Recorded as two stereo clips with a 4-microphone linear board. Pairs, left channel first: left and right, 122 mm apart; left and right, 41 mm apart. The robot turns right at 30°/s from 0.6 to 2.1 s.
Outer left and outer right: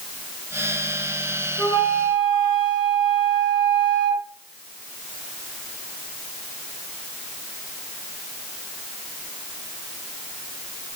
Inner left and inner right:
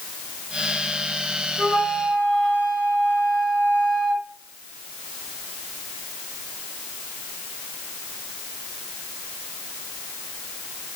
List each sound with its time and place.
1.6 s a flute: 25° left (ahead or behind), 0.8 m; by 4.2 s 40° left (ahead or behind), 0.8 m